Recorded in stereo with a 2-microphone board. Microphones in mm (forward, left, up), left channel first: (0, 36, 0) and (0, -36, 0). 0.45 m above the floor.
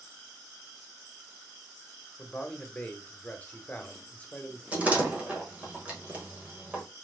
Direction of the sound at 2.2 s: 20° left (ahead or behind).